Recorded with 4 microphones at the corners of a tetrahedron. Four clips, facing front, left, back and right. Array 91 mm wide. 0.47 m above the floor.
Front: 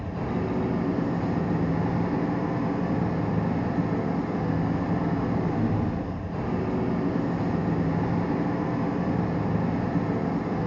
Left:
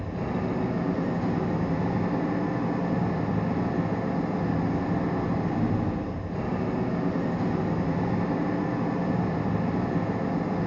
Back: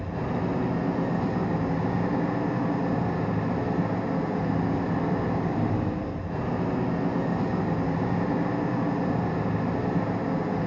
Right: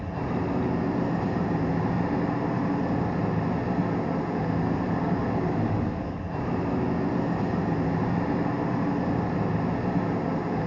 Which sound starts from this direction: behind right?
An engine running, at 0.0 s.